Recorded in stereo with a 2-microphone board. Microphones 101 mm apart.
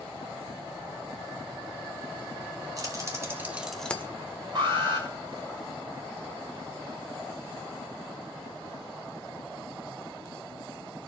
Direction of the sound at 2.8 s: 35° right (ahead or behind).